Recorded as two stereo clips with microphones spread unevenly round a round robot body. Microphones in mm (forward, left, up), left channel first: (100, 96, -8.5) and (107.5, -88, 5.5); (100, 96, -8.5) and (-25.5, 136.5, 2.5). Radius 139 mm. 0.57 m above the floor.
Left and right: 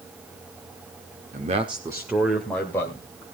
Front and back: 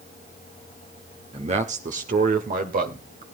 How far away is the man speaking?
About 1.2 m.